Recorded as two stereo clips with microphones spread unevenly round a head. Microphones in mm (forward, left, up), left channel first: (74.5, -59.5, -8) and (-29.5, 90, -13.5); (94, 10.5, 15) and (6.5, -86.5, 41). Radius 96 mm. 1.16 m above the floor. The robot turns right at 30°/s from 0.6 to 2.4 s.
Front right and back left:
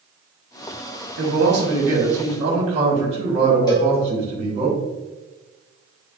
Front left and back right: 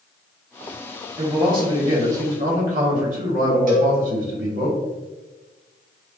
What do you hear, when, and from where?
1.2 s a man speaking: 150° left, 1.2 m; by 4.7 s 175° right, 1.2 m
3.7 s a cowbell: 125° right, 1.2 m